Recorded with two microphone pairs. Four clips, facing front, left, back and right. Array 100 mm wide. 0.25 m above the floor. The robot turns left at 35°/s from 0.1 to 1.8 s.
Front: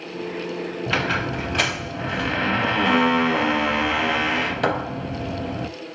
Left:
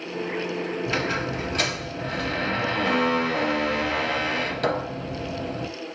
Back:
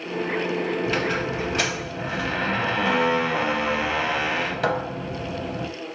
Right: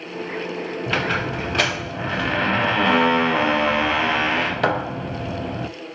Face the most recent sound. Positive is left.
turn(degrees=-75)